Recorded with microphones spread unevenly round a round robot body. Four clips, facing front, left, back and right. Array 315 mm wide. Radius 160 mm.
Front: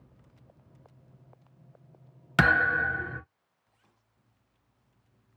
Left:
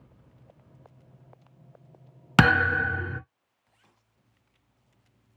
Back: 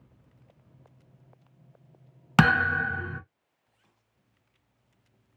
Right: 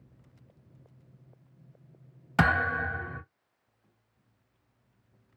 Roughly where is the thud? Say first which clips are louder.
Left 5 dB, back 1 dB; behind left.